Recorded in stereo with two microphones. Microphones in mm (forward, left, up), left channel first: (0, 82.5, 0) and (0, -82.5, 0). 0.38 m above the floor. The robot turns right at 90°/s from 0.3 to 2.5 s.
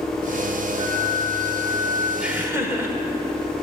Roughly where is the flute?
Left.